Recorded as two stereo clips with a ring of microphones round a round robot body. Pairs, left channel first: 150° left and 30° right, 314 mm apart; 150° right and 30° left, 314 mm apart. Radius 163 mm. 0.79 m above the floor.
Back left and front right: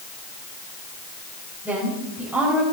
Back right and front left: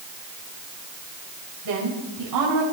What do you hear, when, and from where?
1.6 s a woman speaking: 55° left, 4.5 m